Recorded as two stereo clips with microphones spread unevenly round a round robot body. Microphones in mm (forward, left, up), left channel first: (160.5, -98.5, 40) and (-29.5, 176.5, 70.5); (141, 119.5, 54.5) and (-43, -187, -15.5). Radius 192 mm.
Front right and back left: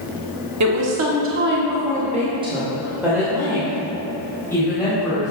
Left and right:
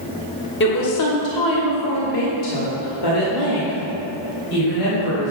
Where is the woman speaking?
120° left, 1.4 m; by 5.3 s 25° left, 3.5 m.